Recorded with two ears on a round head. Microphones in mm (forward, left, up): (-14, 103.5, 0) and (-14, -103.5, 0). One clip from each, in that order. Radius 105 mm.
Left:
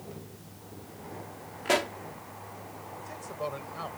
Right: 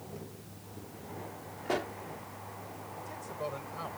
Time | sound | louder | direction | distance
1.6 | a pop | left 7 dB | 75° left (ahead or behind) | ?
3.0 | a man speaking | left 3 dB | 15° left (ahead or behind) | ?